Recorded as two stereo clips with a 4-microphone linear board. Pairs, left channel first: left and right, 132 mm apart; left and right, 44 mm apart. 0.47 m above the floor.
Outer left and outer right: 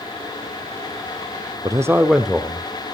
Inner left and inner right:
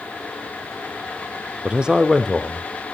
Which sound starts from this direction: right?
A man speaking, at 1.6 s.